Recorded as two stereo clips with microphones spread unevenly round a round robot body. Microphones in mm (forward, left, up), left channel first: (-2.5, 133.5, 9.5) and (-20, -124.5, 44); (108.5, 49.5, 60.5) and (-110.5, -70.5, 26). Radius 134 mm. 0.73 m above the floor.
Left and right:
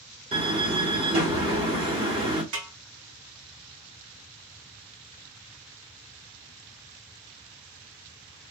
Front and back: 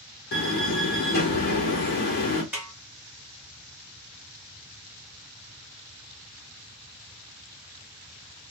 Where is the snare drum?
65° right, 3 m.